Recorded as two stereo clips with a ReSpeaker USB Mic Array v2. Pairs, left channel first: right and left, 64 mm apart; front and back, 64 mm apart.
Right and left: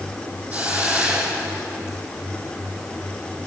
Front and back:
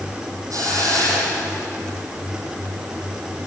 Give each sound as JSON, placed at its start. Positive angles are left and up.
{"t": 0.5, "sound": "a hiss", "azimuth_deg": 155, "distance_m": 4.5}